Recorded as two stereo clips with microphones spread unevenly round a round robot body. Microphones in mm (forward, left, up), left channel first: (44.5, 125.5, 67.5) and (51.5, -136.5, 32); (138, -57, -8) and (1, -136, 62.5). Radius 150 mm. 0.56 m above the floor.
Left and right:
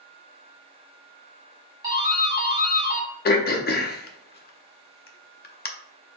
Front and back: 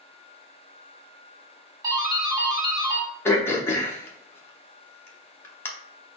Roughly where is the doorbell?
Ahead right.